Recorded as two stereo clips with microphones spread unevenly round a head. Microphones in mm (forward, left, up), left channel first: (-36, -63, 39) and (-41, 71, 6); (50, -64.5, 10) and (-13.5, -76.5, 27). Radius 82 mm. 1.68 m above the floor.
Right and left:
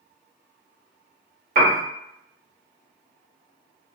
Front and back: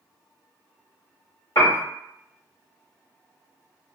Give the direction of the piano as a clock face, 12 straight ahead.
9 o'clock.